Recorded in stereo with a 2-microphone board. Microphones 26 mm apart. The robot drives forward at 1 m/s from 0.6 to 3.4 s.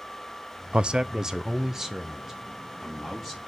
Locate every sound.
0.7 s a man speaking: 50° right (ahead or behind), 0.5 m; by 3.4 s 10° right (ahead or behind), 3 m